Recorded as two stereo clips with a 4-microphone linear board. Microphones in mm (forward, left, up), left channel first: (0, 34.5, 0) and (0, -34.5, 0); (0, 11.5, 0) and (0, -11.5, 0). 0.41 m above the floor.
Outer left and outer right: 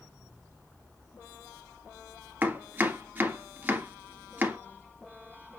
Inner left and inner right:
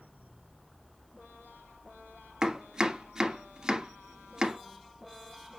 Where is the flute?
I don't hear a flute.